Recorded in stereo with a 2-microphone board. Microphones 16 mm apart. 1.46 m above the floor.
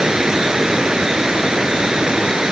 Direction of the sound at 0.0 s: 60° right (ahead or behind).